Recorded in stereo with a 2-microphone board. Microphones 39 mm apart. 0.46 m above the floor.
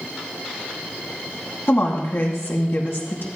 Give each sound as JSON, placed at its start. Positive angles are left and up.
{"t": 1.7, "sound": "a woman speaking", "side_deg": 75, "distance_m": 3.0}